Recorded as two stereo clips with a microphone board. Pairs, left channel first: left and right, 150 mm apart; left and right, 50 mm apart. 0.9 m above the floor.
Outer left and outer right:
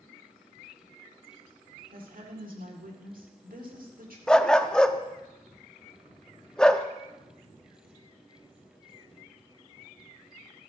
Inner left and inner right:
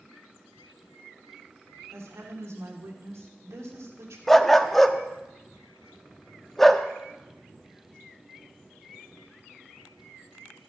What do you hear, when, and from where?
1.9 s a woman speaking: 70° right (ahead or behind), 1.8 m
4.3 s a dog barking: 5° left (ahead or behind), 0.5 m